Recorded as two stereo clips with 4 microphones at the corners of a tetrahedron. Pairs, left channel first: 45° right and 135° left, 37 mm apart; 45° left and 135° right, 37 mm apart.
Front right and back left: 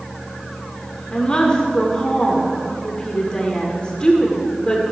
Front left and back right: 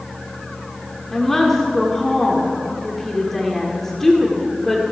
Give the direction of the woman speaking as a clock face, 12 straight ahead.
1 o'clock.